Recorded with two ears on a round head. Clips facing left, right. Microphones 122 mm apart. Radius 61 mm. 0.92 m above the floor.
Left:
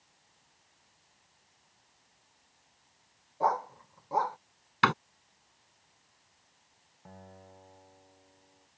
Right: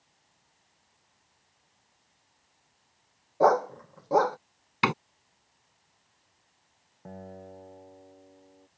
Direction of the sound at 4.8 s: 15° right (ahead or behind).